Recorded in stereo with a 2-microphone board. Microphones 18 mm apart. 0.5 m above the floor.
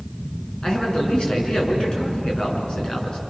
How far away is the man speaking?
About 6.5 m.